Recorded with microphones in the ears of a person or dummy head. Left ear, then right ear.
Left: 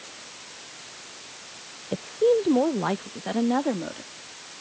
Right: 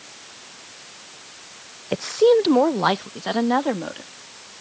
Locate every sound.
1.9 s a woman speaking: 45° right (ahead or behind); by 4.6 s 30° right (ahead or behind)